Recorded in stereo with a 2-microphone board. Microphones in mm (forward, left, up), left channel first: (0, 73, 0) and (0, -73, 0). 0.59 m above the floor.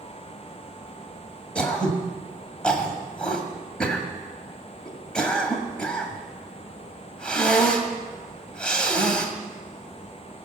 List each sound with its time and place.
1.6 s throat clearing: 5° left (ahead or behind), 1.6 m